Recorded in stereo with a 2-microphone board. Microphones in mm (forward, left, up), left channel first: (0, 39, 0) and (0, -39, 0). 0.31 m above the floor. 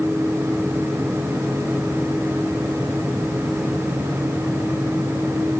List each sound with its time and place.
Only background noise.